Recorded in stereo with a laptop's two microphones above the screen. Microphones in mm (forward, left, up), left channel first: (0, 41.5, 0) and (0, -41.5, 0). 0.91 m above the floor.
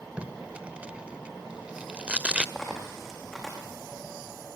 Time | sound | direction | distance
0.2 | tape being pulled | 15° right (ahead or behind) | 1.5 m
2.5 | a dropped coin | 5° left (ahead or behind) | 5 m